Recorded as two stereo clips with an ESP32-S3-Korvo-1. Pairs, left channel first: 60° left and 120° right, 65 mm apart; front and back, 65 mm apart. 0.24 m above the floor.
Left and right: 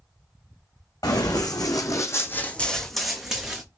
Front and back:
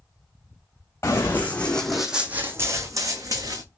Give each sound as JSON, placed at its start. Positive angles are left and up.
{"t": 1.0, "sound": "running footsteps", "azimuth_deg": 55, "distance_m": 1.1}